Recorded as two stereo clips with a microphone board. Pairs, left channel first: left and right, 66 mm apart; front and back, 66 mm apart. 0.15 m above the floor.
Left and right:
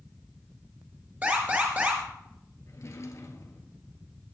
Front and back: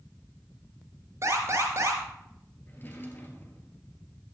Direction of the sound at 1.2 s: 150° right.